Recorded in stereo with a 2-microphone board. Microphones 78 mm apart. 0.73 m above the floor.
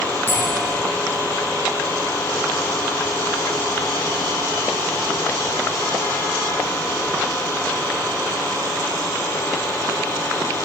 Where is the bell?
35° right (ahead or behind), 5.5 m.